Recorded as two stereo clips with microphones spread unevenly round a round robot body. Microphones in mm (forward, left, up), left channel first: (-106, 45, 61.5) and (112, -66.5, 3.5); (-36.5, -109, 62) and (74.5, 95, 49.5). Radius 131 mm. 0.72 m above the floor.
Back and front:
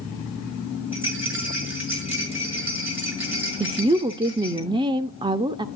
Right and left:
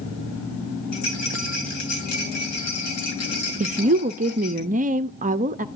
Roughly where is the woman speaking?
Ahead.